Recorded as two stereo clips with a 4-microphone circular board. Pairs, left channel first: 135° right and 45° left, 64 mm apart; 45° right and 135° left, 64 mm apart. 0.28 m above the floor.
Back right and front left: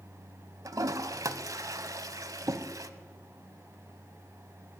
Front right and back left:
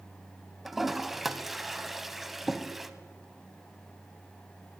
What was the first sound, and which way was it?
A toilet flushing, 50° left.